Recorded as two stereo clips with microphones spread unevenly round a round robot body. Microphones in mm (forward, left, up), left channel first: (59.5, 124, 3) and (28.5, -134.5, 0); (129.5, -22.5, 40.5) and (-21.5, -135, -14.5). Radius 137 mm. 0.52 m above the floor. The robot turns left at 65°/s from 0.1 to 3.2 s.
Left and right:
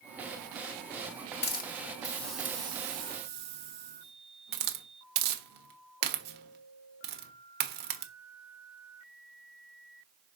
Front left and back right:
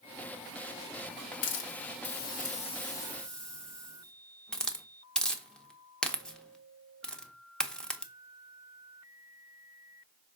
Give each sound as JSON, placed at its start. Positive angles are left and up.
{"t": 1.4, "sound": "a hiss", "azimuth_deg": 50, "distance_m": 1.2}